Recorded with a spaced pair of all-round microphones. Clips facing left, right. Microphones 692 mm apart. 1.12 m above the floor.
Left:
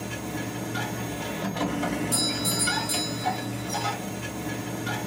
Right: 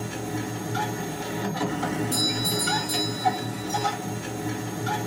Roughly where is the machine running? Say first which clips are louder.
Right 2 dB; centre.